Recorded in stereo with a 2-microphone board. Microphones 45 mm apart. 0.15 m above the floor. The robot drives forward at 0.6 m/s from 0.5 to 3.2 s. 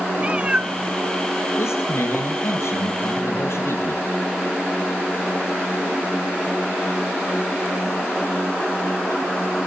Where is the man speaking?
70° left (ahead or behind), 4 m; by 4.0 s 65° left (ahead or behind), 4 m.